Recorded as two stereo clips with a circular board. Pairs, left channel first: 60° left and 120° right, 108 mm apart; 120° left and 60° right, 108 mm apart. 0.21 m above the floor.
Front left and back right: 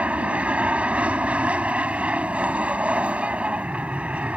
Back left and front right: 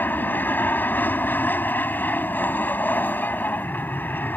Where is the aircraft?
175° left.